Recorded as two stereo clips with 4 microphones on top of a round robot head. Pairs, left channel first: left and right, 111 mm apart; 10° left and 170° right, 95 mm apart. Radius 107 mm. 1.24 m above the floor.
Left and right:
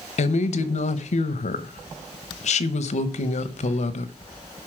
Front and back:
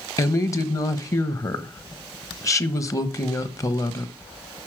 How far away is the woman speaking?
About 1.0 m.